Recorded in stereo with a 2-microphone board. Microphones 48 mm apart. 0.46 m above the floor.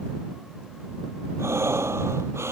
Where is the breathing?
70° right (ahead or behind).